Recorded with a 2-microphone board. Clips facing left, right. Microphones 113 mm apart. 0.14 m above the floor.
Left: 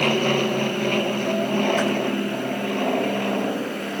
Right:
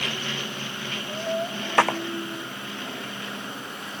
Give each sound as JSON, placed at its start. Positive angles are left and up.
{"t": 0.0, "sound": "an aircraft", "side_deg": 55}
{"t": 1.8, "sound": "a clap", "side_deg": -75}